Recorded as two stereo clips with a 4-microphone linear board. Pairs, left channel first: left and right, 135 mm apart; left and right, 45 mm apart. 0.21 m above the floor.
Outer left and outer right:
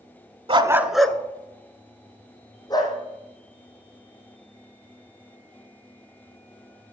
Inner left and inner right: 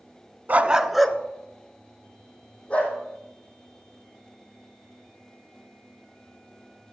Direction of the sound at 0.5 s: 45° right (ahead or behind).